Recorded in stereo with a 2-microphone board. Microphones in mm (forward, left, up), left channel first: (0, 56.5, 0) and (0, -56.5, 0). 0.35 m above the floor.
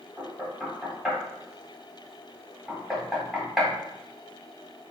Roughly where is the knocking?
Centre.